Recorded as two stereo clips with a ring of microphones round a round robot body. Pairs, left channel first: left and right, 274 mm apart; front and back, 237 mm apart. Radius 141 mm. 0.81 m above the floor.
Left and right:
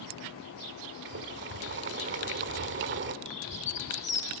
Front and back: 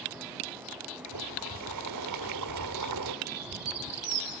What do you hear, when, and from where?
1.1 s boiling: 145° right, 1.3 m
3.2 s a bird: 160° left, 9 m